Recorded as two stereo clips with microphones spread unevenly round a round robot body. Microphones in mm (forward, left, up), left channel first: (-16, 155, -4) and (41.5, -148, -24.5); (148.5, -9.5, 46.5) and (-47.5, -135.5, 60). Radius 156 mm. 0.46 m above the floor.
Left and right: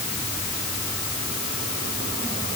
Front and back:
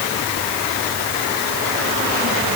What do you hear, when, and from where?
Only background noise.